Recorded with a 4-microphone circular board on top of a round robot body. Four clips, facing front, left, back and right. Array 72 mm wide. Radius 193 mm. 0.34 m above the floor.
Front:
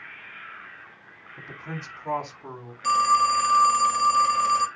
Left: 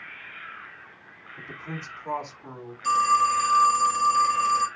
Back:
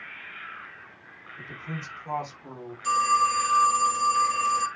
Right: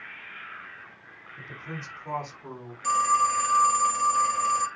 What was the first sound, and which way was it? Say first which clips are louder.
A man speaking: left 2 dB, even; 15° left.